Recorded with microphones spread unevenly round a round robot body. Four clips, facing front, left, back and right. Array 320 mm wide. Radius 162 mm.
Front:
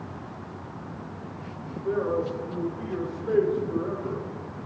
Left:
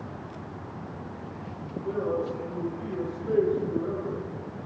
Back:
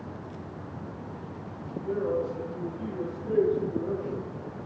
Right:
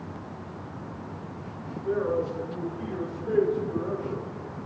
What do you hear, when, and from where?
1.8 s a man speaking: 15° left, 8 m